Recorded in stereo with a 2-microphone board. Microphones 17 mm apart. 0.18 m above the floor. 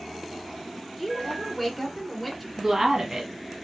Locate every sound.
1.0 s a woman speaking: centre (ahead or behind), 2 m
2.6 s a woman speaking: 25° right (ahead or behind), 1.3 m